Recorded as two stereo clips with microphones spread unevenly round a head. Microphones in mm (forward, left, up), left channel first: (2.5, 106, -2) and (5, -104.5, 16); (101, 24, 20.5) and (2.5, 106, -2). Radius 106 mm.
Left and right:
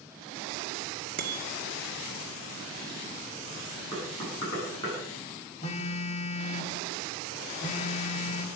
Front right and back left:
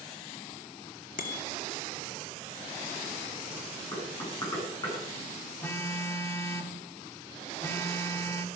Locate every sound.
1.2 s a bicycle bell: 40° right, 2 m
3.9 s knocking: 20° left, 9.5 m
5.6 s a phone buzzing: 30° left, 2.0 m